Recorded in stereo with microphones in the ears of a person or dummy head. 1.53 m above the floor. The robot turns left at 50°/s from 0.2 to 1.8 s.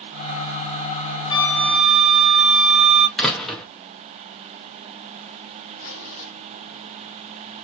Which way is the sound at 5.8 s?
75° left (ahead or behind).